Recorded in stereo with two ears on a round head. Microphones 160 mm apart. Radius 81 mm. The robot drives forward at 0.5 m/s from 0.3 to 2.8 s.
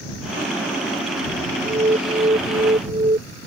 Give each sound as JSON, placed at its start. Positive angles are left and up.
{"t": 1.6, "sound": "an alarm", "side_deg": -25}